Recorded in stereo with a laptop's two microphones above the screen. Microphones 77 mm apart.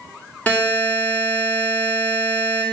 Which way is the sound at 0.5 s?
20° left (ahead or behind).